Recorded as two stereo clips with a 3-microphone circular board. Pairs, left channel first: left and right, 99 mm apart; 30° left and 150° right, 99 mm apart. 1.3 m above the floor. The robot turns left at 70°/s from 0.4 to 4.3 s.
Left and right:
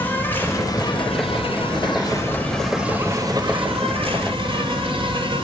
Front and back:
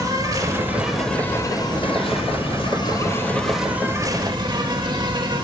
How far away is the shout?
I don't hear a shout.